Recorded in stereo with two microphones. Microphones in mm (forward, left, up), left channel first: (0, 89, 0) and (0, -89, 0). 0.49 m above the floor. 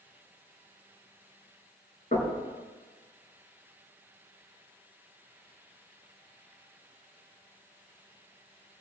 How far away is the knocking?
About 5 m.